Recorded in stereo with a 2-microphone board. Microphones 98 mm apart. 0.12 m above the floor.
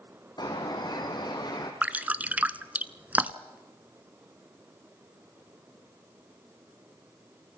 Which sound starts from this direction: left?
A bird, at 0.4 s.